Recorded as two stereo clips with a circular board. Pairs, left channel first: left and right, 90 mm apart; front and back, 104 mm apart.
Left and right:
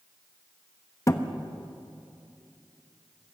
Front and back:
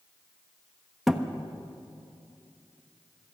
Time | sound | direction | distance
1.1 | a thud | 95° left | 1.1 m